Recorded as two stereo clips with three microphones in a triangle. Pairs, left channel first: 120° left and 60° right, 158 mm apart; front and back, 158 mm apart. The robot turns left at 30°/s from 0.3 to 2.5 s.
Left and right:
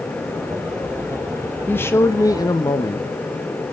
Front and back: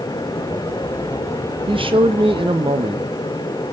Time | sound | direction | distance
1.7 | a man speaking | 170° right | 0.8 m